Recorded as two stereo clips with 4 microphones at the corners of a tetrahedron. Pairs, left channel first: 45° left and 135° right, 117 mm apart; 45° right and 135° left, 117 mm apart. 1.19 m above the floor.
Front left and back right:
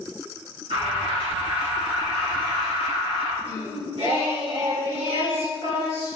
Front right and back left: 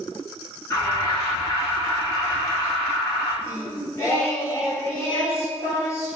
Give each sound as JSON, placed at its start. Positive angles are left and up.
{"t": 0.7, "sound": "an alarm", "azimuth_deg": -100, "distance_m": 3.0}
{"t": 3.4, "sound": "singing", "azimuth_deg": -105, "distance_m": 2.5}